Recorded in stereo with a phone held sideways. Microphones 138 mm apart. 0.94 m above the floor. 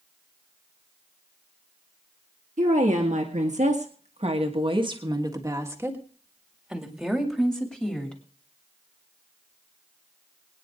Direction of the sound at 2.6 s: 65° right (ahead or behind).